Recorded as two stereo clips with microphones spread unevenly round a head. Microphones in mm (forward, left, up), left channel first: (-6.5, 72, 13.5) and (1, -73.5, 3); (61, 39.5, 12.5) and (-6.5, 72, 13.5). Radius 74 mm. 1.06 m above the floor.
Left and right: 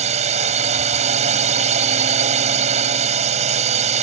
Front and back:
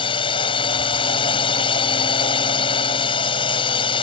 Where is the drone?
40° right.